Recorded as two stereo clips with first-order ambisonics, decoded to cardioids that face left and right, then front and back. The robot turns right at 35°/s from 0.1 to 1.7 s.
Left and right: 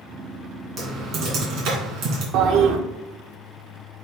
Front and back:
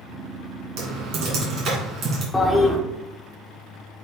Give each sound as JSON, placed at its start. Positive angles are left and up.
{"t": 0.8, "sound": "typing on a keyboard", "azimuth_deg": -165, "distance_m": 3.0}
{"t": 2.3, "sound": "a toilet flushing", "azimuth_deg": -80, "distance_m": 0.9}